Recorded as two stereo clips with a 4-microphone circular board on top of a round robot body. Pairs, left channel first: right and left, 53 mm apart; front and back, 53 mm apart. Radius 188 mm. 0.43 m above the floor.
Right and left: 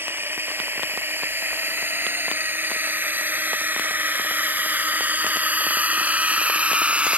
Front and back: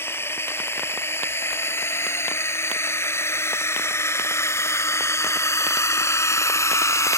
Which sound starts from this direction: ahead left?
A drone, at 0.0 s.